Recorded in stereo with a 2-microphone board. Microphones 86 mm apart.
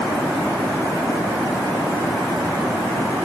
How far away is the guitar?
I don't hear a guitar.